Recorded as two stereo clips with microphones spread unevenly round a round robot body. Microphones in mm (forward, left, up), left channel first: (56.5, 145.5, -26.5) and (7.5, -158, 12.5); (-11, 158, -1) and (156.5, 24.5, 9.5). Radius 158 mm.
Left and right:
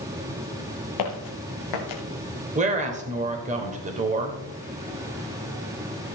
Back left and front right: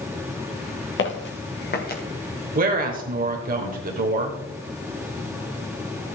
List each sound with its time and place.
1.0 s footsteps: 110° left, 2.5 m; by 2.0 s 95° left, 2.5 m
2.5 s a woman speaking: 35° right, 1.5 m